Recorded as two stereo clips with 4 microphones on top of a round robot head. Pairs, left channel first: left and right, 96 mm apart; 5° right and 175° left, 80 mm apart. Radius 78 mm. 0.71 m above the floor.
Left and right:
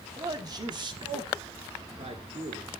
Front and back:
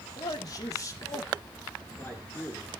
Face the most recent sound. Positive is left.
turn(degrees=-80)